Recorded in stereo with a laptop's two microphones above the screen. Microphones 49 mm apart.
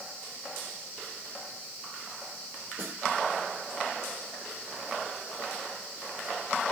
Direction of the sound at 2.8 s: 80° right.